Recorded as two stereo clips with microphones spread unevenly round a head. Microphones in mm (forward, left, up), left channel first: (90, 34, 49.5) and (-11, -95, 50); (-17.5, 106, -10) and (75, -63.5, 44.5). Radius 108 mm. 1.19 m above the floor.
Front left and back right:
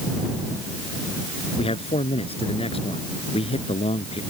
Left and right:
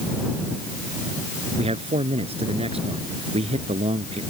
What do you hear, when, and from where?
1.6 s a man speaking: straight ahead